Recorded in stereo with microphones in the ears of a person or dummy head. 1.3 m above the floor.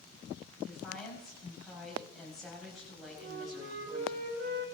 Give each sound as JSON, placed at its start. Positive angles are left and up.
{"t": 0.7, "sound": "a woman speaking", "side_deg": 0, "distance_m": 7.0}
{"t": 3.2, "sound": "a flute", "side_deg": -80, "distance_m": 6.0}